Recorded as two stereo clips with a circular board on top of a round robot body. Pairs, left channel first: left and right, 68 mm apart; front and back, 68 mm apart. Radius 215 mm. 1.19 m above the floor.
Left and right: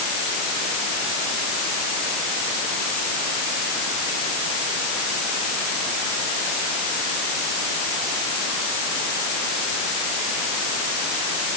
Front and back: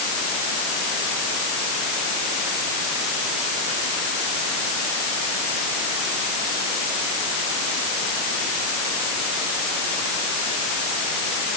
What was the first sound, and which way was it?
Only background noise.